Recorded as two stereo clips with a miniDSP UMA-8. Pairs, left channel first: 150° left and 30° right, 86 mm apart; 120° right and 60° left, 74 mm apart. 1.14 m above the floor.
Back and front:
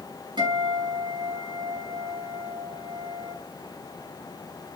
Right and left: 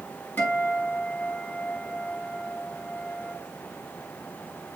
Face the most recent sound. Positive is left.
turn(degrees=-55)